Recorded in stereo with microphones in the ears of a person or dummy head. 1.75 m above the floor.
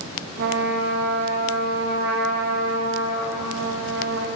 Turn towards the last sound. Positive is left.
turn(degrees=-70)  # may be behind; listen again after turning